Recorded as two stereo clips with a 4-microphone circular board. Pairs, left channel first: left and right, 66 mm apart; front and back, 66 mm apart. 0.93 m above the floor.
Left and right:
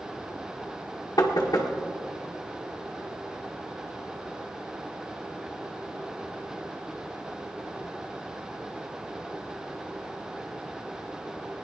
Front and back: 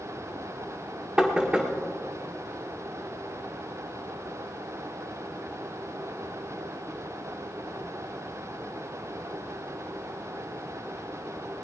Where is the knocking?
100° left, 1.7 m.